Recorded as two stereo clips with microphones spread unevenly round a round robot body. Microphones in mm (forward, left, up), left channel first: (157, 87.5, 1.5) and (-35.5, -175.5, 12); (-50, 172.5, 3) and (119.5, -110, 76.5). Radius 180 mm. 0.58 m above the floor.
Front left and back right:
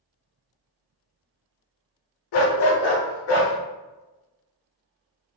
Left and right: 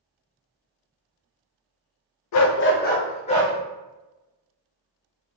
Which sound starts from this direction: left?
A dog barking, at 2.3 s.